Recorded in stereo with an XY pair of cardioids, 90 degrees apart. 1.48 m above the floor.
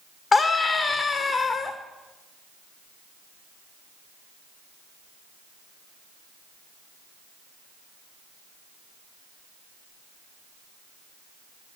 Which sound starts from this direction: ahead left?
A scream, at 0.3 s.